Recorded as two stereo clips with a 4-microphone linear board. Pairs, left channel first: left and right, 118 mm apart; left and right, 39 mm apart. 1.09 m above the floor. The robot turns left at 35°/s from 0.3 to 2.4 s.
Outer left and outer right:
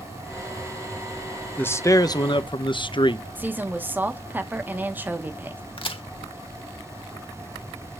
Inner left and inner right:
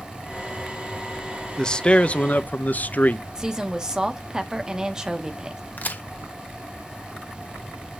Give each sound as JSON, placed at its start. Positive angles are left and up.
{"t": 1.6, "sound": "a man speaking", "side_deg": 15, "distance_m": 0.7}
{"t": 3.4, "sound": "a woman speaking", "side_deg": -15, "distance_m": 1.3}
{"t": 5.8, "sound": "a crack", "side_deg": 50, "distance_m": 1.2}